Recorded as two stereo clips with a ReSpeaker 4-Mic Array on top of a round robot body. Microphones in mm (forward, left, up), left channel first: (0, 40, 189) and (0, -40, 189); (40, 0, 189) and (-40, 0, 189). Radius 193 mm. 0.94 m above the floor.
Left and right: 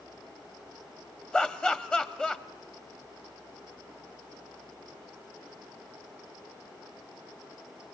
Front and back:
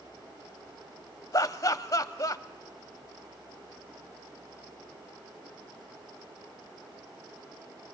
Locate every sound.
1.3 s laughter: 20° left, 1.0 m